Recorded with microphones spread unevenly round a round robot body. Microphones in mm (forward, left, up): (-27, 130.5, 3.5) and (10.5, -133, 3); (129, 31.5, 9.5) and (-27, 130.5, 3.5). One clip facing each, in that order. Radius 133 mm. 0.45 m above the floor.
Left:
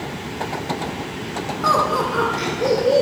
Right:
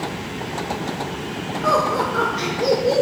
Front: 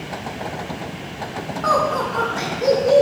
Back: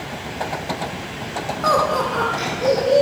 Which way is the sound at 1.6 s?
120° left.